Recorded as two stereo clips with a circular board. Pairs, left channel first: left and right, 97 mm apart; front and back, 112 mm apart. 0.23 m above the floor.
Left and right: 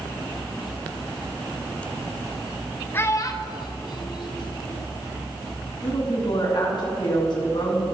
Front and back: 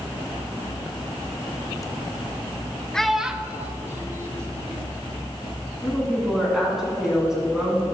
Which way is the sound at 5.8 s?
95° left.